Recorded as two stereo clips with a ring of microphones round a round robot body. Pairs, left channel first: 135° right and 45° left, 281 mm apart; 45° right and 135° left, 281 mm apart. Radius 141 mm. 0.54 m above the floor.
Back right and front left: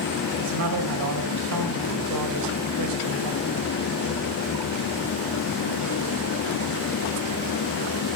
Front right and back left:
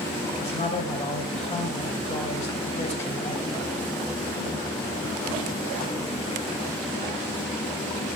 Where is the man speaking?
25° left, 3 m.